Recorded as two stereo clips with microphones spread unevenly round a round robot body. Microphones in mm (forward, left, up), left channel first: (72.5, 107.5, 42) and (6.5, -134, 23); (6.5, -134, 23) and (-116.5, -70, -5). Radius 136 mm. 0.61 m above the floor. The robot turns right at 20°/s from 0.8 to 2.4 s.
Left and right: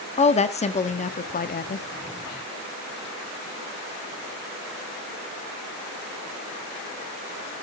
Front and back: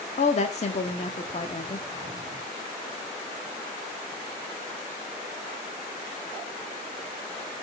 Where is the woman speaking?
15° left, 1.0 m; by 1.8 s 35° left, 1.0 m.